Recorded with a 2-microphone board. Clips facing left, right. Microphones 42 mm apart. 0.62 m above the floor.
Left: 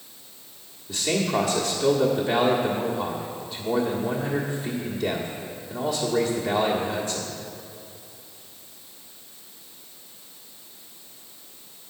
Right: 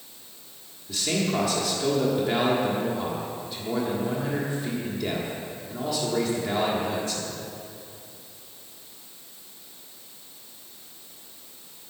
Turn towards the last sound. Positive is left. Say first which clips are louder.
# left 2 dB
turn(degrees=5)  # may be behind; listen again after turning